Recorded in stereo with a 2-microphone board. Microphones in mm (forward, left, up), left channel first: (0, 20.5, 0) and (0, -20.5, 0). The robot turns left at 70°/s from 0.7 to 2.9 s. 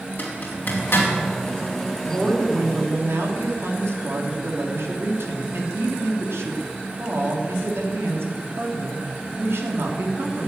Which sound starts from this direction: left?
A zipper, at 0.2 s.